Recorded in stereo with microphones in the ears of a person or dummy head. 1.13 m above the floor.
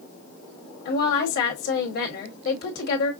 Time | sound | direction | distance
0.8 | a woman speaking | 50° left (ahead or behind) | 1.7 m